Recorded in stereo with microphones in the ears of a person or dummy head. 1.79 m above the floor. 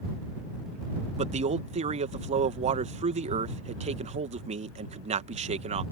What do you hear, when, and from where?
1.2 s a man speaking: 35° right (ahead or behind)